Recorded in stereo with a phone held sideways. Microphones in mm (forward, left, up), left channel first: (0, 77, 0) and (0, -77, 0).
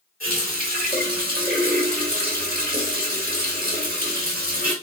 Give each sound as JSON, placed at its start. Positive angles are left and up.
{"t": 0.2, "sound": "a running tap", "side_deg": -70, "distance_m": 1.8}